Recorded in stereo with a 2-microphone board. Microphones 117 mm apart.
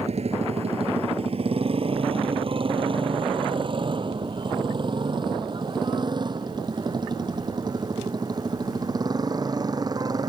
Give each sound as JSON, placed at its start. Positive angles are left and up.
{"t": 0.0, "sound": "a motorcycle", "side_deg": -60}